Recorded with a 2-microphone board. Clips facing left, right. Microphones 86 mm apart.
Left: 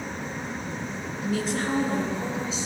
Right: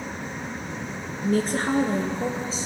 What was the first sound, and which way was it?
A woman speaking, 45° right (ahead or behind).